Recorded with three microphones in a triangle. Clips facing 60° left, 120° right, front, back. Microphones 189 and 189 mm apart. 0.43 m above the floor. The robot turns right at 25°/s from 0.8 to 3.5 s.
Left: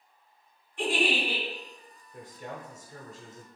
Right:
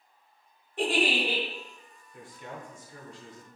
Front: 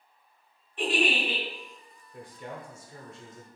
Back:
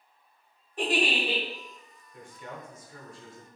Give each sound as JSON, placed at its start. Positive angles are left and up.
{"t": 0.8, "sound": "a giggle", "azimuth_deg": -135, "distance_m": 1.3}
{"t": 2.1, "sound": "a man speaking", "azimuth_deg": 30, "distance_m": 1.0}